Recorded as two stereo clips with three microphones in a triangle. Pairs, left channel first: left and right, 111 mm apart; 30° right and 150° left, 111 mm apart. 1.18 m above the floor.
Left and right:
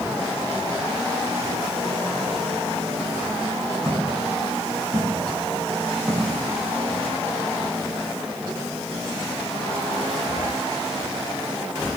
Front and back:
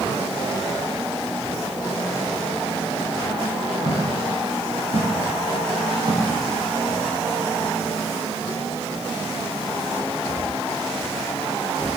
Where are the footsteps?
150° left, 9.5 m; by 7.0 s 145° left, 11 m.